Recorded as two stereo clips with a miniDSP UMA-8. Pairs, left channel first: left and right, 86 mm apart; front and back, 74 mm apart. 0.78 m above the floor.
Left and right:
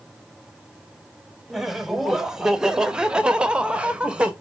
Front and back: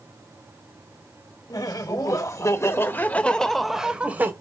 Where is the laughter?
5° right, 1.6 m; by 4.3 s 155° right, 1.0 m.